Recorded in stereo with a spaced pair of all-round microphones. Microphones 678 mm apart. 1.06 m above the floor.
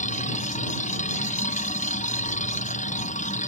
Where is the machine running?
10° left (ahead or behind).